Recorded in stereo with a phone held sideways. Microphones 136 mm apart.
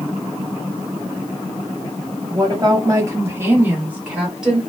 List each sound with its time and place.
2.3 s a woman speaking: 35° right (ahead or behind), 1.0 m; by 4.6 s 5° right (ahead or behind), 1.3 m